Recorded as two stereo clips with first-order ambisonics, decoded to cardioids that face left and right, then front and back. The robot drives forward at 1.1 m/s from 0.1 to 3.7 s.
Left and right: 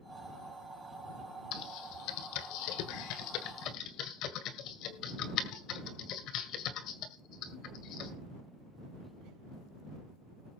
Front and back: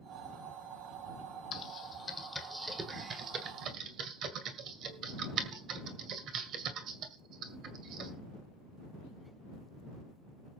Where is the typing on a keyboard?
55° left, 1.9 m; by 8.1 s 130° left, 2 m.